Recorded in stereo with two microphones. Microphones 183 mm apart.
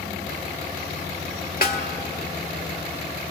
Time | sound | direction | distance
1.6 | a snare drum | 50° left (ahead or behind) | 1.9 m